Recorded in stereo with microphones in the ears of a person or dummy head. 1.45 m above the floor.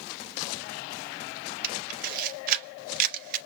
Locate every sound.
1.6 s a camera shutter: 50° right (ahead or behind), 0.7 m